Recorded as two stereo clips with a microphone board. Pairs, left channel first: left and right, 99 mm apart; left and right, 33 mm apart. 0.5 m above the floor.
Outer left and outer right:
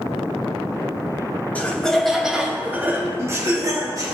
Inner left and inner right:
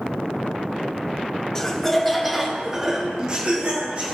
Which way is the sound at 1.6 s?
15° left (ahead or behind).